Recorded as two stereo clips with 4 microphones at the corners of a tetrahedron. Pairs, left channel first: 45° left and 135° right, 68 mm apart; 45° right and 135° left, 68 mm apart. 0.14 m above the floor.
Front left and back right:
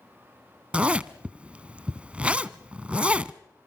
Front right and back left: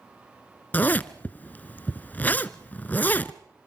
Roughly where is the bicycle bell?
No bicycle bell in this recording.